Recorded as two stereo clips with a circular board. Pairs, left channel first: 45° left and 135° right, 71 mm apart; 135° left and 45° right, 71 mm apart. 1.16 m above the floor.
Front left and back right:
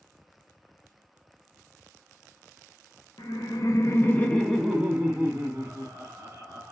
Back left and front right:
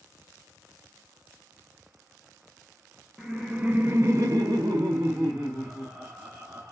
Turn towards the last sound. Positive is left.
turn(degrees=-85)